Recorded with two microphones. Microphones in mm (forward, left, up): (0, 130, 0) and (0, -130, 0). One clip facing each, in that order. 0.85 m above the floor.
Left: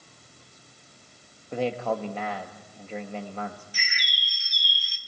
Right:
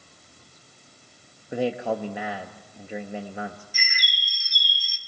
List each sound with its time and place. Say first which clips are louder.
1.5 s a man speaking: right 2 dB; 15° right (ahead or behind), 1.1 m
3.7 s a bird: right 1 dB; 70° left (ahead or behind), 1.8 m